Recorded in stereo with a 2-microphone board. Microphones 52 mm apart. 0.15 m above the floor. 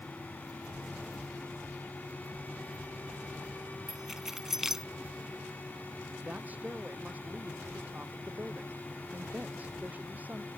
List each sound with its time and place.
3.9 s keys jangling: 5° right (ahead or behind)
6.2 s a woman speaking: 30° right (ahead or behind)